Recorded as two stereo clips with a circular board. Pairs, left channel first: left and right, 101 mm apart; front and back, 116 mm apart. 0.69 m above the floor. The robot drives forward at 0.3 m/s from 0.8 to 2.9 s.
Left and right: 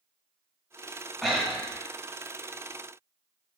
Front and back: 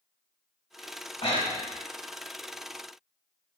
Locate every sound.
1.2 s breathing: 5° right, 1.0 m